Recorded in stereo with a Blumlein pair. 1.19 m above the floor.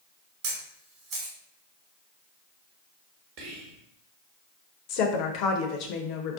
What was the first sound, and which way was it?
A camera shutter, 35° right.